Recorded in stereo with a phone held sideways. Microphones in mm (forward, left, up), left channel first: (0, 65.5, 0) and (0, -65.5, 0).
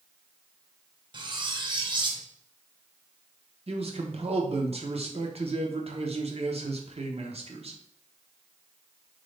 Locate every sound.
1.1 s cutlery clinking: 35° right (ahead or behind), 0.6 m
3.7 s a man speaking: 50° right (ahead or behind), 0.7 m